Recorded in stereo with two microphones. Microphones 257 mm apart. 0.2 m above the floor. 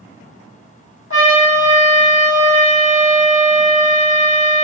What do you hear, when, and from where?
1.1 s a trumpet: 50° left (ahead or behind), 1.5 m